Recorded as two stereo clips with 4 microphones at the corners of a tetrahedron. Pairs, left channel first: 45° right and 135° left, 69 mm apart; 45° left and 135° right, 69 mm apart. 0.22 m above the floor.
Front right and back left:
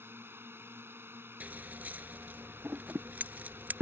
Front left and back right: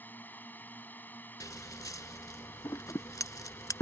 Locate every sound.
0.0 s a drone: 95° left
1.4 s scissors: 70° left